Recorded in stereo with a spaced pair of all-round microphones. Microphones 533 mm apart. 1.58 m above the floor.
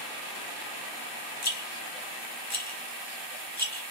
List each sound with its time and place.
1.4 s a rattle: 30° left (ahead or behind), 1.3 m